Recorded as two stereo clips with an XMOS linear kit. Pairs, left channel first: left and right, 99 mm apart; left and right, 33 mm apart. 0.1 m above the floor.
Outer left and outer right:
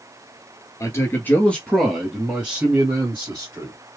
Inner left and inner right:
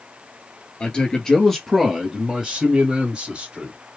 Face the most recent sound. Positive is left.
turn(degrees=-30)  # may be behind; listen again after turning